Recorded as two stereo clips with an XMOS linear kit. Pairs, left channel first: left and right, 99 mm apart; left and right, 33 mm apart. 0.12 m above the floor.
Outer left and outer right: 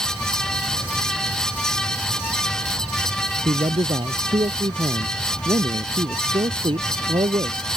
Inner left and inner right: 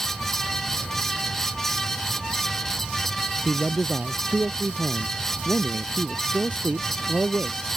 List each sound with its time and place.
3.5 s a man speaking: 65° right (ahead or behind)